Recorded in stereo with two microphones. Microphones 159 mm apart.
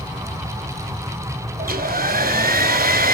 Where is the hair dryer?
65° right (ahead or behind), 0.9 m.